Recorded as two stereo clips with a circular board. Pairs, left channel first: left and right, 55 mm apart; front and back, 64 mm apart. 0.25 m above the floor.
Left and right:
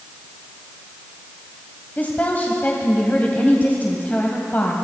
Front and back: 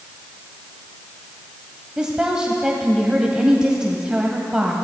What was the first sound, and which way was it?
A woman speaking, 110° left.